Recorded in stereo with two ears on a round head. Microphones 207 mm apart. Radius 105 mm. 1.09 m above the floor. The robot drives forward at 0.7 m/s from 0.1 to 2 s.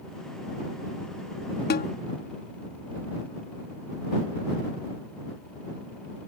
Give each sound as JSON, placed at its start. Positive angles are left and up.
{"t": 1.7, "sound": "a snare drum", "side_deg": 40}